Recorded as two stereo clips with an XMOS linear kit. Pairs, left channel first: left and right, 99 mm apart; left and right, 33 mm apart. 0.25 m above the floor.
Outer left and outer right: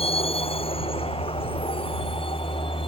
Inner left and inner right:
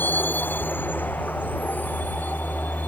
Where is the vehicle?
75° left (ahead or behind); by 2.9 s 60° left (ahead or behind).